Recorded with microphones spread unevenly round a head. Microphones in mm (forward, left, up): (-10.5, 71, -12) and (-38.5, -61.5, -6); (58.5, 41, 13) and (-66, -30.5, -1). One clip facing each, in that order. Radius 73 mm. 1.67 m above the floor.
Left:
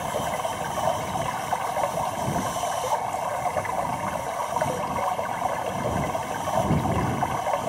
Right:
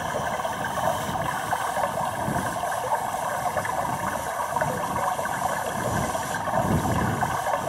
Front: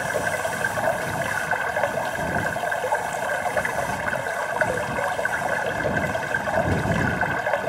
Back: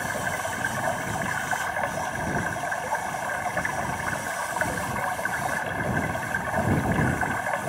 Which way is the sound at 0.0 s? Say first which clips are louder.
Even, front 5 dB; 5° right.